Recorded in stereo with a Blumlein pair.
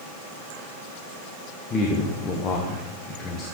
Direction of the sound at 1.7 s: 20° left.